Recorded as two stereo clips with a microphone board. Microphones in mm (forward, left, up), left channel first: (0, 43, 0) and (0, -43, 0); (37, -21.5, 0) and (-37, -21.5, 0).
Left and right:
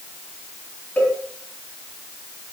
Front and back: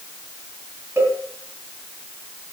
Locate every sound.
1.0 s a cowbell: 155° left, 2.0 m